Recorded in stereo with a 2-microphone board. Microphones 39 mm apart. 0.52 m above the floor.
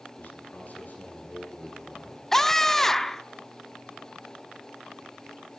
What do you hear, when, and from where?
0.2 s a man speaking: 45° left (ahead or behind), 9 m
2.3 s a scream: 10° left (ahead or behind), 0.7 m